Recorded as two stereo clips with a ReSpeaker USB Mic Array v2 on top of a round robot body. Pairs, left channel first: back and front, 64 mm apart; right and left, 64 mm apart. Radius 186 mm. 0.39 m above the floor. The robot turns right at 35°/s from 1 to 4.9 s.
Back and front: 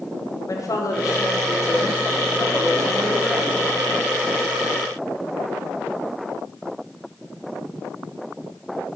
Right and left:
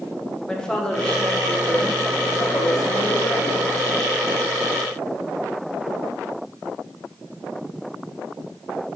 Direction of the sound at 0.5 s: 170° right.